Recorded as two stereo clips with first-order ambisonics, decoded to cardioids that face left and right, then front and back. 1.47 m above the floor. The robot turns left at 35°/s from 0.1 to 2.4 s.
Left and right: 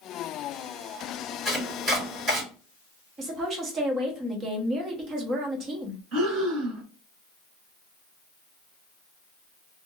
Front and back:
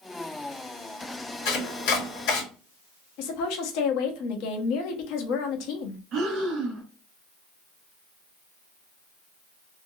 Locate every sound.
1.4 s chopping: 5° left, 2 m; by 2.4 s 30° right, 2 m
3.2 s a woman speaking: 25° right, 1.1 m
6.1 s breathing: 130° right, 1.6 m